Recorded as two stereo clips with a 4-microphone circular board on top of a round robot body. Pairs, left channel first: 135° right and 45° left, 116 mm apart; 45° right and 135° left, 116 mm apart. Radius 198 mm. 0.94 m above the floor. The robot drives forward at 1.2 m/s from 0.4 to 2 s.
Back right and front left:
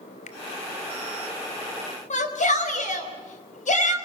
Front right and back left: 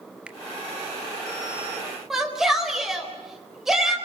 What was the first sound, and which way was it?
A finger snap, 145° right.